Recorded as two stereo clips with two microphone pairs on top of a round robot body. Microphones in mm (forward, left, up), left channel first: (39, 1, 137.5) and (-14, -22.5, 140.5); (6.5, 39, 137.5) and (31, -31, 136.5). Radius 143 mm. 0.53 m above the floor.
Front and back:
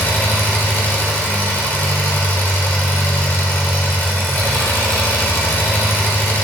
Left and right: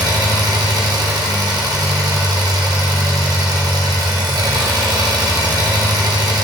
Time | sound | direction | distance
0.0 | an engine running | 35° right | 1.3 m